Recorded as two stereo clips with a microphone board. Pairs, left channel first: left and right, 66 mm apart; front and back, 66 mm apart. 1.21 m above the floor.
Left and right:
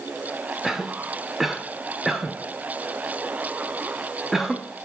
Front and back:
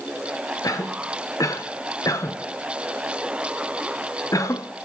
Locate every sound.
0.6 s a cough: 5° right, 1.0 m